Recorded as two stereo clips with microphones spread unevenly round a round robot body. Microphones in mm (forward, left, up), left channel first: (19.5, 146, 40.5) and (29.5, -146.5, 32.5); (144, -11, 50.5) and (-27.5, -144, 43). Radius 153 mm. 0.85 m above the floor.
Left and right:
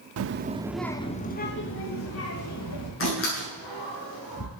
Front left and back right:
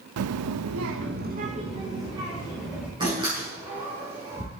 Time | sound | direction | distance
0.2 | a child speaking | 135° right | 0.9 m
3.0 | a door slam | 140° left | 9 m